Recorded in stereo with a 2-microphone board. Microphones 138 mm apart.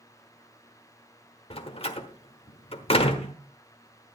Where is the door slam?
45° left (ahead or behind), 1.2 m.